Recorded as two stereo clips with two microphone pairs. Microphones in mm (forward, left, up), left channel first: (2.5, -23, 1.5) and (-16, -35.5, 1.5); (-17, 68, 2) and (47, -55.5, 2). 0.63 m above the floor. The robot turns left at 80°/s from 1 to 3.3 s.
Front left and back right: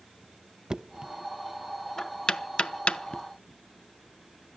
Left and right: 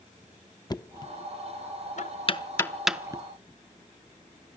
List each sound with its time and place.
0.7 s knocking: 175° left, 0.6 m; by 3.2 s 5° right, 0.6 m